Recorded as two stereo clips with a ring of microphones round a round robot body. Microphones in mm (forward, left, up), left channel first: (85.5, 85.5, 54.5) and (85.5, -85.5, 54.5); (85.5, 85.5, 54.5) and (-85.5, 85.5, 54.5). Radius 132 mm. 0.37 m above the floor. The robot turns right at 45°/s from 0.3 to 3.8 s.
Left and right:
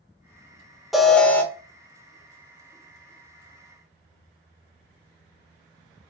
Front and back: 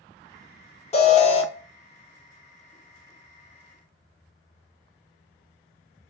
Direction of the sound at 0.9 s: Straight ahead.